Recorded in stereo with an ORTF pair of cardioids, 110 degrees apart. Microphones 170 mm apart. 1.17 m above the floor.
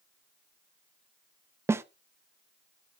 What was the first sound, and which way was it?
A snare drum, 15° right.